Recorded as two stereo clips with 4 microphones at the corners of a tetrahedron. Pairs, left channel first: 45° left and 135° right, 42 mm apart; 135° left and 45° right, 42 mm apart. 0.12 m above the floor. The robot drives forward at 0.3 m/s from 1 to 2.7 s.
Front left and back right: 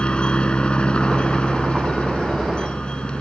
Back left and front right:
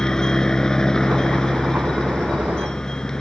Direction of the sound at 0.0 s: 80° left.